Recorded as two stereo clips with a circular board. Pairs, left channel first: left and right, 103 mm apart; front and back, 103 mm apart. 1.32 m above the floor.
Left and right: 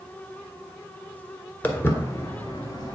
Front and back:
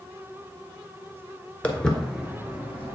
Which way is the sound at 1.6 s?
50° left.